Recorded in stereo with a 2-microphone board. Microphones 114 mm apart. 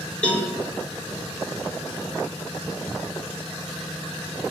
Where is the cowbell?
10° left (ahead or behind), 1.5 m.